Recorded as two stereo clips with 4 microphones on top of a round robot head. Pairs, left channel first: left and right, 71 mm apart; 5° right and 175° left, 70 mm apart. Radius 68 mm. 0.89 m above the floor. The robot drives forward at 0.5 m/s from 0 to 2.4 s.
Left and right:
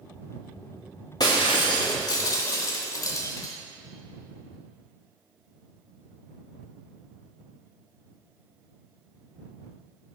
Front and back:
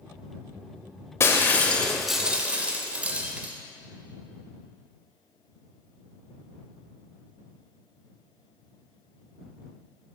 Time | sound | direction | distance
1.2 | breaking glass | 40° left | 0.8 m